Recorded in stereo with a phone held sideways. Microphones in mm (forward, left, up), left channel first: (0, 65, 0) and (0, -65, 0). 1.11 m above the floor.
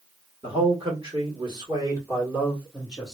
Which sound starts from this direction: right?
A man speaking, at 0.4 s.